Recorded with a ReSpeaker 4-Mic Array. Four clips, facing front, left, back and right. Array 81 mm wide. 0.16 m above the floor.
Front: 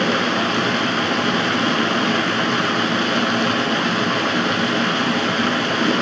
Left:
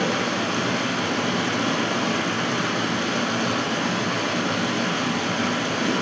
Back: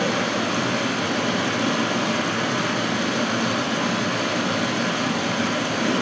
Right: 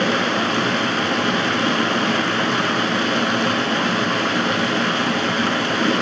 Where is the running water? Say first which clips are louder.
Right 4 dB, front 4 dB; 50° right, 1.7 m.